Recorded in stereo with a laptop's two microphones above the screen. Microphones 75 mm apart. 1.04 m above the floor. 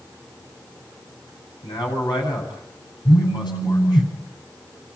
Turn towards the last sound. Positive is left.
turn(degrees=65)  # may be behind; listen again after turning